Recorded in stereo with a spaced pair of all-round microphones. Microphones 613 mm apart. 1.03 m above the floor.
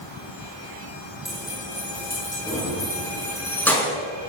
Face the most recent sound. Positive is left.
turn(degrees=0)  # may be behind; listen again after turning